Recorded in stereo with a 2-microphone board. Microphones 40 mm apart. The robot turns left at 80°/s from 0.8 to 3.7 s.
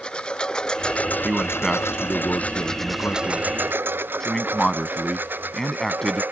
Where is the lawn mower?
25° left (ahead or behind); by 6.3 s 50° right (ahead or behind).